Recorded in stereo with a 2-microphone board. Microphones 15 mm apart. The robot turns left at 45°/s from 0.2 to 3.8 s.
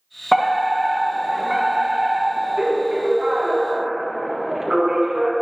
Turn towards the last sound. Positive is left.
turn(degrees=-120)